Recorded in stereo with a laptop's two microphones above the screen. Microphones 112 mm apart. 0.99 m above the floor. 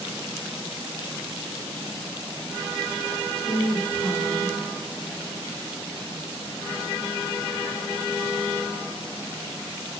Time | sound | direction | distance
3.4 | a woman speaking | 40° left (ahead or behind) | 5.5 m